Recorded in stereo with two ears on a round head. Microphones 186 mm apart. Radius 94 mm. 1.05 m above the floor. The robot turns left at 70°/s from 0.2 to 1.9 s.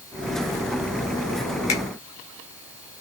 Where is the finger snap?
35° left (ahead or behind), 4 m; by 1.8 s 25° left (ahead or behind), 4 m.